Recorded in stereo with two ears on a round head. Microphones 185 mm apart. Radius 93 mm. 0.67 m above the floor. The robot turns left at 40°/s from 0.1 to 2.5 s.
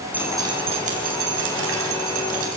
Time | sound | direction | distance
0.1 | dripping | 10° right (ahead or behind) | 4 m